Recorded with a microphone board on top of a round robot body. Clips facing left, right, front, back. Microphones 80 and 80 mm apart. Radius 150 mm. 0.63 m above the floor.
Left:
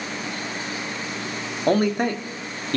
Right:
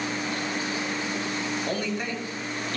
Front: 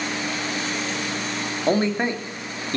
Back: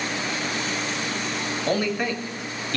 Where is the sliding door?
I don't hear a sliding door.